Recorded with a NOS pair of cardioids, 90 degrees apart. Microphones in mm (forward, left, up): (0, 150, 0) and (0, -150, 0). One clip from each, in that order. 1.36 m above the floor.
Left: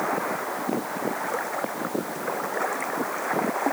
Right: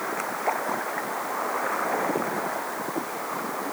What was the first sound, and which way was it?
Only background noise.